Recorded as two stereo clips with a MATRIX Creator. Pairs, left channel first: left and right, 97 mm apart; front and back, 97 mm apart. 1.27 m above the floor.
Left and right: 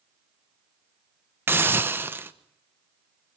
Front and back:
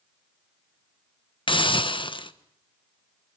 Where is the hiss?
25° right, 1.1 m.